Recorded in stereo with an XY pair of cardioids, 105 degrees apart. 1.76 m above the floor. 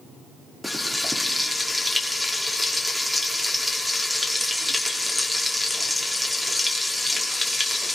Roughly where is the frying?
Ahead.